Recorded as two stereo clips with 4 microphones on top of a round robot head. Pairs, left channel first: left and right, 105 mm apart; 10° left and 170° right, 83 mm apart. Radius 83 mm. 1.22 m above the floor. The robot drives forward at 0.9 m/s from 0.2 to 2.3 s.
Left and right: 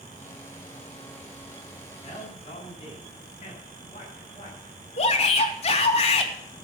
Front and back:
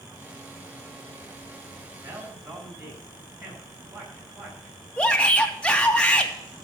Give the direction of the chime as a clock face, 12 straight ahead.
No chime in this recording.